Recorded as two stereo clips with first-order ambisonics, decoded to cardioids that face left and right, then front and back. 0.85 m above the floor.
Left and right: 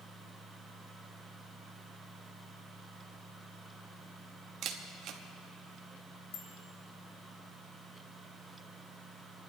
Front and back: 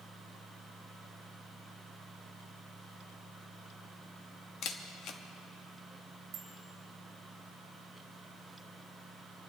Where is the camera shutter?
45° right, 1.0 m.